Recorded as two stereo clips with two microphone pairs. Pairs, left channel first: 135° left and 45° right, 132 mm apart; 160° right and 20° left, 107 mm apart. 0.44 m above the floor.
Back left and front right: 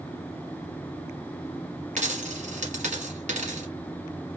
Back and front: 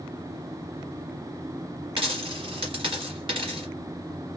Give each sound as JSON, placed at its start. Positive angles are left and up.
{"t": 2.0, "sound": "a dropped coin", "azimuth_deg": -20, "distance_m": 1.6}